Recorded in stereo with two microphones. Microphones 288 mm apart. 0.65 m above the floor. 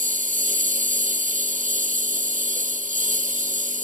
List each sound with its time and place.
0.0 s a lawn mower: 25° right (ahead or behind)